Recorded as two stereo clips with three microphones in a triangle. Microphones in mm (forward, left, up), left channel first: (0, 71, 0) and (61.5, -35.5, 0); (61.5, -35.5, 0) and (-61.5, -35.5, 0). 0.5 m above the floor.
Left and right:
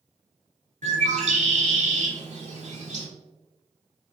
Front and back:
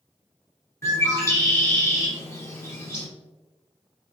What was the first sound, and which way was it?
A bird, 65° right.